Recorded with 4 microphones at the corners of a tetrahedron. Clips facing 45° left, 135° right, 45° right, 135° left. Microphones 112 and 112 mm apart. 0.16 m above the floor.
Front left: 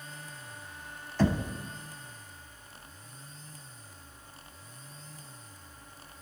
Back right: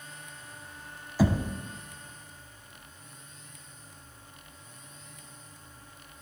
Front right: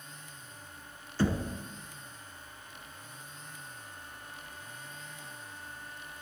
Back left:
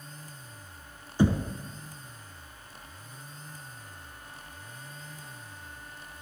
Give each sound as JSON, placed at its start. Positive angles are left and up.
{"t": 1.2, "sound": "knocking", "azimuth_deg": 160, "distance_m": 0.7}